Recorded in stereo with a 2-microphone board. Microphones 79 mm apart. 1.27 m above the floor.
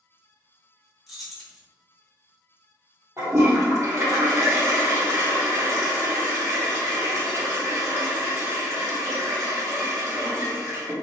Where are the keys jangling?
Centre (ahead or behind), 0.8 m.